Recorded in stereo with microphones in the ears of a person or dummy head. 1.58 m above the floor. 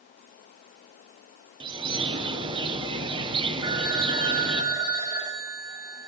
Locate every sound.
1.6 s a bird: 25° right (ahead or behind), 1.1 m
3.6 s a phone ringing: 20° right (ahead or behind), 1.0 m